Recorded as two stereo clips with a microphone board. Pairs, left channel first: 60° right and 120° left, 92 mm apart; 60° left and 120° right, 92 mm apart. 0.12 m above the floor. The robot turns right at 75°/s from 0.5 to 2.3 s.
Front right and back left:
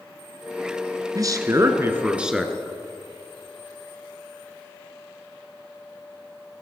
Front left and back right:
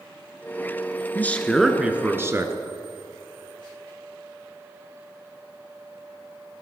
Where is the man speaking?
115° left, 1.3 m; by 2.5 s 160° right, 1.3 m.